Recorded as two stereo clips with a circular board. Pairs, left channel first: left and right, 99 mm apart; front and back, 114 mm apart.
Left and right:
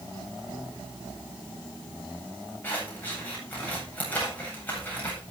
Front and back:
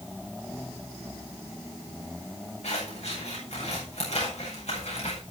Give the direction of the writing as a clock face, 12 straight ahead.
No writing in this recording.